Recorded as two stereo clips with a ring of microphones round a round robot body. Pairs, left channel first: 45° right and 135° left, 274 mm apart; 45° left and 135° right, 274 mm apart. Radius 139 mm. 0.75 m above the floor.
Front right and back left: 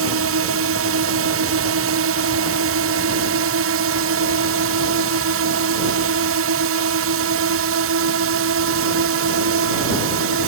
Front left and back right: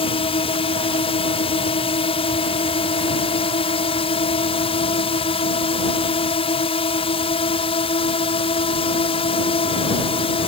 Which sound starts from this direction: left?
A drone, at 0.0 s.